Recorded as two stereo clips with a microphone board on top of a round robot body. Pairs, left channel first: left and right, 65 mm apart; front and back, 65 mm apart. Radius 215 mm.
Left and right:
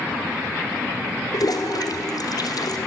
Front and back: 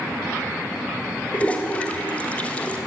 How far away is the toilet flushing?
About 2.5 m.